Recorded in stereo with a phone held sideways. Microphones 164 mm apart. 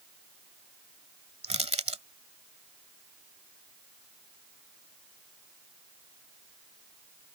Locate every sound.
1.4 s crushing: 40° right (ahead or behind)